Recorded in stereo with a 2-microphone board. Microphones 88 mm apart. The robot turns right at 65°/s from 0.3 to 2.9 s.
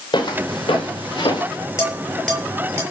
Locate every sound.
0.1 s footsteps: 55° left (ahead or behind), 5.5 m
1.8 s dishes clattering: 40° left (ahead or behind), 9 m; by 2.8 s 30° right (ahead or behind), 9 m